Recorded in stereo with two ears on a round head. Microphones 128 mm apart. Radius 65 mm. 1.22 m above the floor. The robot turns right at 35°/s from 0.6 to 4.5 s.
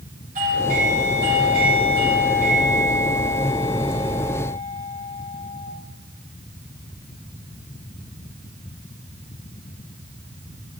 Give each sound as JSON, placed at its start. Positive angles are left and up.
{"t": 0.3, "sound": "a doorbell", "azimuth_deg": -115, "distance_m": 8.5}